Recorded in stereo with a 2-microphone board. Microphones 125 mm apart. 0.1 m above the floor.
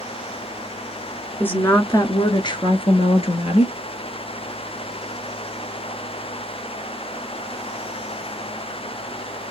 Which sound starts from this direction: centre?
A woman speaking, at 1.4 s.